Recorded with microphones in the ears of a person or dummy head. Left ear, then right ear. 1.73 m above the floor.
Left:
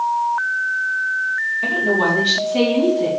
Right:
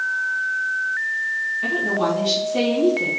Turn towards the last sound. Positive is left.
turn(degrees=-5)  # may be behind; listen again after turning